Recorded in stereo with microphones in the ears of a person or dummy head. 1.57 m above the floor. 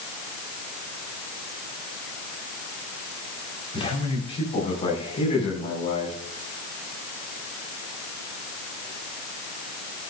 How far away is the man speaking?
About 5 m.